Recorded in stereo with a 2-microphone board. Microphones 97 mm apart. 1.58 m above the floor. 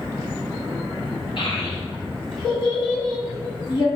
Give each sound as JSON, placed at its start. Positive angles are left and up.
{"t": 1.4, "sound": "a child speaking", "side_deg": 60, "distance_m": 1.5}